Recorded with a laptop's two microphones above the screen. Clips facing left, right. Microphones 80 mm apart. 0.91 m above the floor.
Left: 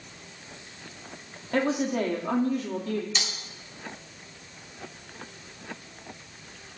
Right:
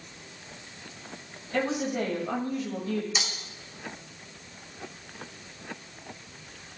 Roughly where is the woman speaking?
Left.